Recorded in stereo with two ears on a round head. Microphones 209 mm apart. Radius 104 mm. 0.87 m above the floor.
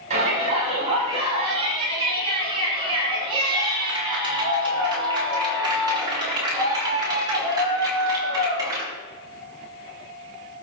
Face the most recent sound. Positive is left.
turn(degrees=-15)  # may be behind; listen again after turning